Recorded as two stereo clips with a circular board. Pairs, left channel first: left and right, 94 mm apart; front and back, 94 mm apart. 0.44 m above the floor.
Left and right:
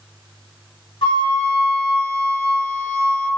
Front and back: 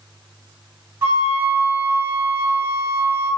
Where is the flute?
125° left, 1.8 m.